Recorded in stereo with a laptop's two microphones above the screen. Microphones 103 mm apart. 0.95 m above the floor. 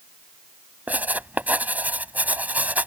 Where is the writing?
15° right (ahead or behind).